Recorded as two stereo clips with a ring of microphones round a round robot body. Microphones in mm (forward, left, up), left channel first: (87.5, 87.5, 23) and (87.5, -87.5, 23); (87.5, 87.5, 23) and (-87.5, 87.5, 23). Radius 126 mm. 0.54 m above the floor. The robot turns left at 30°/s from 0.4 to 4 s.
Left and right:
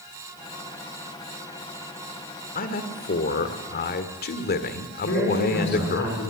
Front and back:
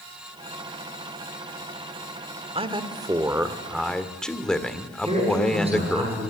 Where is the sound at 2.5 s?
130° left, 1.8 m; by 6.0 s 85° left, 1.8 m.